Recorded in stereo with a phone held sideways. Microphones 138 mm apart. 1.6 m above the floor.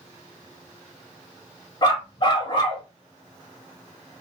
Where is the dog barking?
30° left (ahead or behind), 1.6 m.